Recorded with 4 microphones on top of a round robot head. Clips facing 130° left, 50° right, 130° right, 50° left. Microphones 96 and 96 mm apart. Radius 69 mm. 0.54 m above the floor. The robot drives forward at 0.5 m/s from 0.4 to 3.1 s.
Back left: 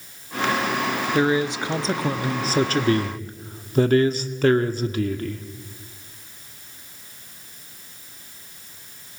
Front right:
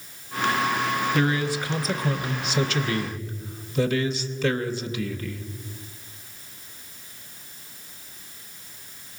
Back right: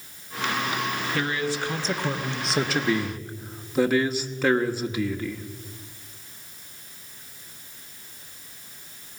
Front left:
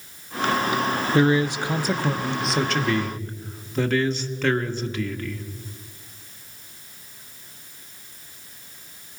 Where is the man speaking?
70° left, 1.0 m; by 5.5 s 150° left, 1.3 m.